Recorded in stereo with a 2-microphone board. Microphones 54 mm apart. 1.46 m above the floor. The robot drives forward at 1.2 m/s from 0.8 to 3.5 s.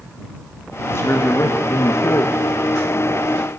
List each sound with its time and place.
0.8 s a man speaking: 45° left (ahead or behind), 3 m; by 2.4 s 80° left, 2.5 m